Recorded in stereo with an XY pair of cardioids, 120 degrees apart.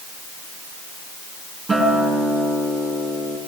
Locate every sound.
1.7 s a guitar: 15° right, 4 m